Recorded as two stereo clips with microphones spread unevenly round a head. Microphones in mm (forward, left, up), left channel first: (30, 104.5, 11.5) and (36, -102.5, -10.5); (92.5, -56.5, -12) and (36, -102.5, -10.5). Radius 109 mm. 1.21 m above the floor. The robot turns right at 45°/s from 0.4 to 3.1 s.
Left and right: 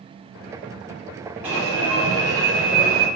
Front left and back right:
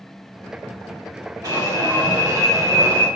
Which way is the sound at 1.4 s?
165° right.